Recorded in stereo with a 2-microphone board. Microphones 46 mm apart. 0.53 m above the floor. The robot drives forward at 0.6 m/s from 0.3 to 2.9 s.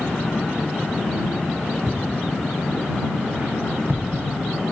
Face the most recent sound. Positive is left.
turn(degrees=-55)  # may be behind; listen again after turning